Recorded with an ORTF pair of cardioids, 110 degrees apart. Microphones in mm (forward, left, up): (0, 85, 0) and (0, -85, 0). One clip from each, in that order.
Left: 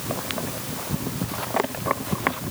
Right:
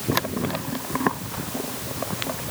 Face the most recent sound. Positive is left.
No sound to turn to.